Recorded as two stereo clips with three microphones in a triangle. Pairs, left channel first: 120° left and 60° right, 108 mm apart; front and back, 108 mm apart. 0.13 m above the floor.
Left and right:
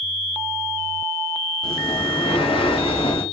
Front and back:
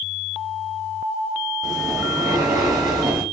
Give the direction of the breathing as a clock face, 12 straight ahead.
8 o'clock.